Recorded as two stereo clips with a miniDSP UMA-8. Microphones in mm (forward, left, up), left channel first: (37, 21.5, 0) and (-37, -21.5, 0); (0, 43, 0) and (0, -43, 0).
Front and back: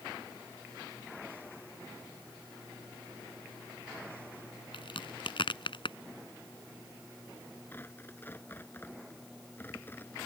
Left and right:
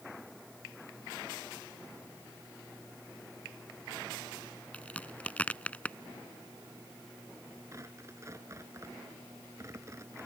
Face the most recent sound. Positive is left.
turn(degrees=-35)